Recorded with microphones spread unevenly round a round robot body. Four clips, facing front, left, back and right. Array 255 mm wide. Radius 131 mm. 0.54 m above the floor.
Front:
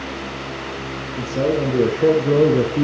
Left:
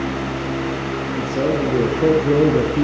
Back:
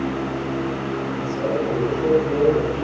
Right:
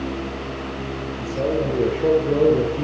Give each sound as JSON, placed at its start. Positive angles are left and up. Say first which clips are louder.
{"t": 1.1, "sound": "a man speaking", "louder": "left 2 dB, front 6 dB", "azimuth_deg": 45, "distance_m": 9.0}